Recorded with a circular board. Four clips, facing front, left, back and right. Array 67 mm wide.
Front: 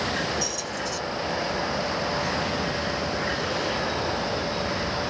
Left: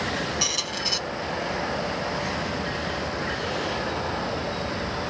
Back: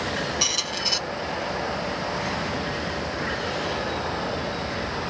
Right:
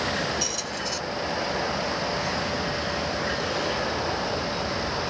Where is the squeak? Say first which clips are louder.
Left 1 dB, back 1 dB; 150° left, 0.7 m.